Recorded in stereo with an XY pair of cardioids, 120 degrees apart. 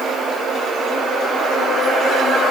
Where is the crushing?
I don't hear crushing.